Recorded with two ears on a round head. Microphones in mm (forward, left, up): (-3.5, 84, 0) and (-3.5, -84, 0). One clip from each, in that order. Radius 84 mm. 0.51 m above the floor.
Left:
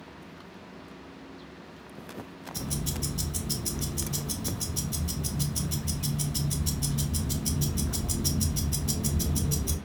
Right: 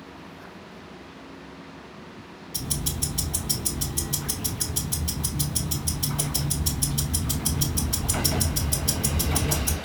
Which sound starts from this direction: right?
Ticking, at 2.5 s.